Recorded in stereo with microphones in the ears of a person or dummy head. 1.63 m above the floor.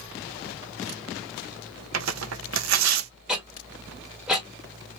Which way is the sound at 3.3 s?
Centre (ahead or behind).